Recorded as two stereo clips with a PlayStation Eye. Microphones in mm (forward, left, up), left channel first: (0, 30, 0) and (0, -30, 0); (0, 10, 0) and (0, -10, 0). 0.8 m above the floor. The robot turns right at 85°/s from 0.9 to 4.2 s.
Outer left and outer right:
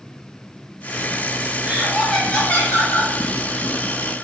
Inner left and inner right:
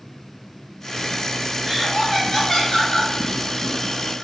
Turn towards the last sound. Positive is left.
turn(degrees=-175)